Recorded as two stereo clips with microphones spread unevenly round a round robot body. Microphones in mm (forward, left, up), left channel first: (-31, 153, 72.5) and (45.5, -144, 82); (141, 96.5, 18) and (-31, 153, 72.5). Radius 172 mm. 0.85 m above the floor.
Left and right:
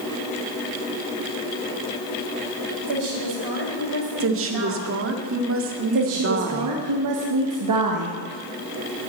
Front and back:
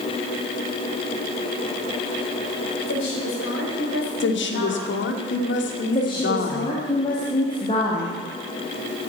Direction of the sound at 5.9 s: 70° right.